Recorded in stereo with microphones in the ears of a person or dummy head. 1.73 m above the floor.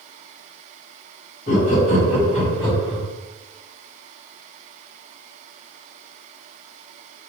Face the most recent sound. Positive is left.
turn(degrees=10)  # may be behind; listen again after turning